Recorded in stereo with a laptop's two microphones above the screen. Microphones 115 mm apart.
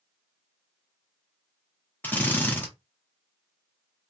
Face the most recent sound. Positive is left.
turn(degrees=15)  # may be behind; listen again after turning